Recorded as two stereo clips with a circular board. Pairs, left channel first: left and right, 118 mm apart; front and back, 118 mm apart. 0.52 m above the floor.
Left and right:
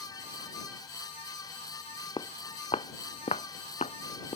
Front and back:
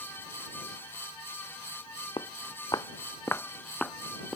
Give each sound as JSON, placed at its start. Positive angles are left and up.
{"t": 2.2, "sound": "footsteps", "azimuth_deg": 45}